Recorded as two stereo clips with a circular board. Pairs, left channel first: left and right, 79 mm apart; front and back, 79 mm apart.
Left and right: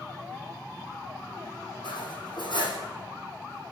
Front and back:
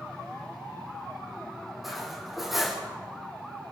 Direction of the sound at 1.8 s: 90° left.